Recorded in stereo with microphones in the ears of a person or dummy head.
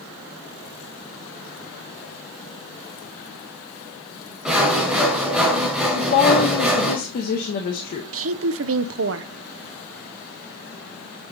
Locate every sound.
4.5 s sawing: centre (ahead or behind), 1.5 m
6.0 s a woman speaking: 50° left (ahead or behind), 1.0 m
8.1 s a woman speaking: 65° right (ahead or behind), 0.6 m